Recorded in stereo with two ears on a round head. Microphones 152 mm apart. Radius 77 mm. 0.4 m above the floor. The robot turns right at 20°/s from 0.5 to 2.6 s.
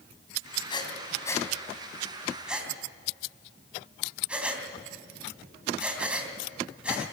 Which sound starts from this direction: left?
Breathing, at 0.7 s.